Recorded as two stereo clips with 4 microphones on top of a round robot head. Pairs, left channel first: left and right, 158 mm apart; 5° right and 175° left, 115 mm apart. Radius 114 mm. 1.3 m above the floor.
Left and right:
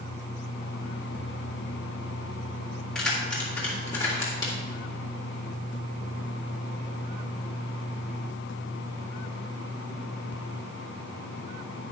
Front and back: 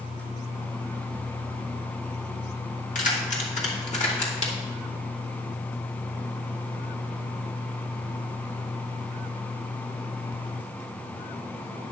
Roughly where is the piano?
No piano in this recording.